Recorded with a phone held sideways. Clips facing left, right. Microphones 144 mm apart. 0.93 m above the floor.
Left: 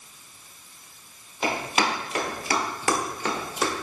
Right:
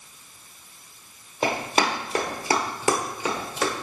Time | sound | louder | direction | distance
1.4 | running footsteps | right 2 dB | 40° right (ahead or behind) | 1.7 m